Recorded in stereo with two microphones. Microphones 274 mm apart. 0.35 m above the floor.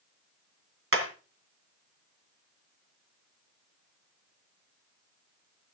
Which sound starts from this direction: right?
Hammering, at 0.9 s.